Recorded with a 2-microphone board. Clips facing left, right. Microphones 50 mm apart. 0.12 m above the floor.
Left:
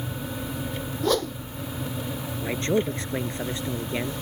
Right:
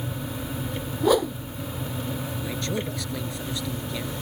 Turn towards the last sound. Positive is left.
turn(degrees=35)  # may be behind; listen again after turning